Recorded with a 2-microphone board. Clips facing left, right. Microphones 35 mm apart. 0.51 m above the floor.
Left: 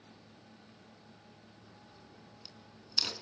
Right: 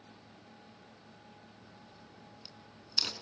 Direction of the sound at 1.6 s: 5° right (ahead or behind).